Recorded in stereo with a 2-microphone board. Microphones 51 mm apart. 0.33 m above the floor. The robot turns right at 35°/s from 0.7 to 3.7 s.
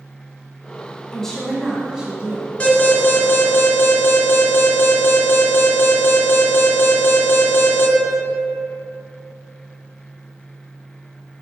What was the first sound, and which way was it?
A woman speaking, 165° left.